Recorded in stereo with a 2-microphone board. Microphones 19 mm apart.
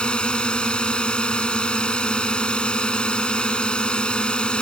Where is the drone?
60° left (ahead or behind).